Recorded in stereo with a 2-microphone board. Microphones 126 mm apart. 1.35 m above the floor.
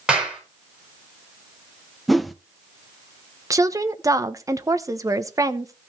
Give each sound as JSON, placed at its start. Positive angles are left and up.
{"t": 0.1, "sound": "a clap", "side_deg": -5, "distance_m": 5.5}
{"t": 2.1, "sound": "a whoosh", "side_deg": 0, "distance_m": 0.6}
{"t": 3.5, "sound": "a woman speaking", "side_deg": -25, "distance_m": 1.0}